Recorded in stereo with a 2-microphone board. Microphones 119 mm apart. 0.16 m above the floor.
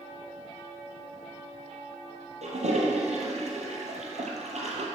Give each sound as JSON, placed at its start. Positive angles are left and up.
{"t": 2.4, "sound": "a toilet flushing", "side_deg": -70, "distance_m": 2.0}